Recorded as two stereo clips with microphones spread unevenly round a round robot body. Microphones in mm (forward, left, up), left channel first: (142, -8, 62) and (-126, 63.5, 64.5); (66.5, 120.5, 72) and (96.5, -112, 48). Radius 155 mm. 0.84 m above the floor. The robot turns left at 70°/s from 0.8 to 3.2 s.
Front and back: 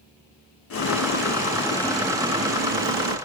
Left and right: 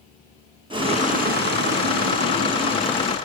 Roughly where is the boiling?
Ahead right.